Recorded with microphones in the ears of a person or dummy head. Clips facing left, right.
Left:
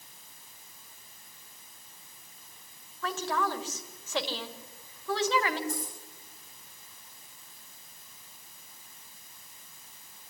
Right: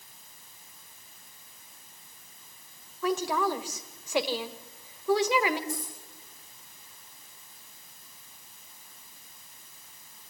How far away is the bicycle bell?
I don't hear a bicycle bell.